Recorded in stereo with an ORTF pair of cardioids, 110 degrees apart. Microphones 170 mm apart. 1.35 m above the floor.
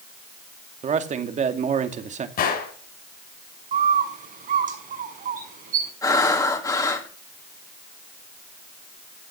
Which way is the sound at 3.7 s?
50° right.